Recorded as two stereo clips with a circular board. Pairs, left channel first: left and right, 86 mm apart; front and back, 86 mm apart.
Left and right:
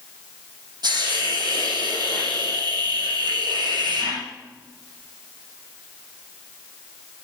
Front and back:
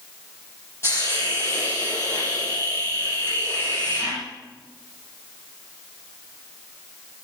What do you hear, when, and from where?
0.8 s a hiss: 55° right, 6 m